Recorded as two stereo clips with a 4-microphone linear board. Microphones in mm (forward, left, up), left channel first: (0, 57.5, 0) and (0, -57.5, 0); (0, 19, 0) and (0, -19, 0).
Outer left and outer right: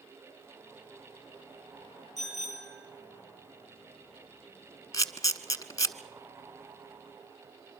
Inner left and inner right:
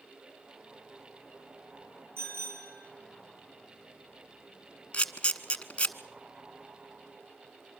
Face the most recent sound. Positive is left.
turn(degrees=30)  # may be behind; listen again after turning